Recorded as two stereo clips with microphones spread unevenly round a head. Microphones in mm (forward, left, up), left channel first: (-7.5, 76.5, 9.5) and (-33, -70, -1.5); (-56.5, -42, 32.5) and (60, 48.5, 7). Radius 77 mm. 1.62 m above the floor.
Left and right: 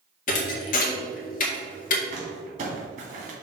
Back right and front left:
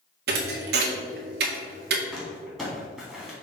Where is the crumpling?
55° right, 2.5 m.